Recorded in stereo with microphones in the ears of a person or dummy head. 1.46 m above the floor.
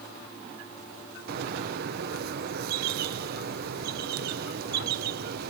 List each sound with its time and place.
1.3 s a bird: 55° right (ahead or behind), 0.5 m